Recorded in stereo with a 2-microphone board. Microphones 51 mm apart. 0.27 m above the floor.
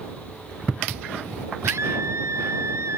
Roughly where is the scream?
Right.